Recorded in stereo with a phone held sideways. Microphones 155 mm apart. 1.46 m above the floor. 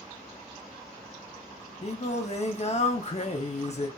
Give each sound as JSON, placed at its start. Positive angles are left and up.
{"t": 1.8, "sound": "singing", "side_deg": 45, "distance_m": 0.6}